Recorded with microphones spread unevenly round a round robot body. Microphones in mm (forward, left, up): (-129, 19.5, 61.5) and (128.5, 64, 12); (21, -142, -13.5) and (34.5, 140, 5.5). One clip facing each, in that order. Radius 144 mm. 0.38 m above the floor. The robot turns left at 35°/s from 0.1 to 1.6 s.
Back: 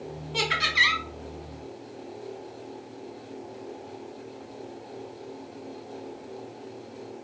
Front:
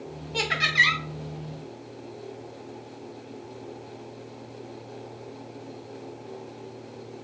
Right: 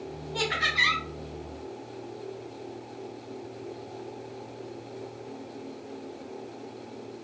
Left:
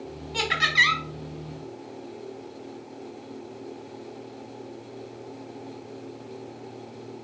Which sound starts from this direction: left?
Laughter, at 0.3 s.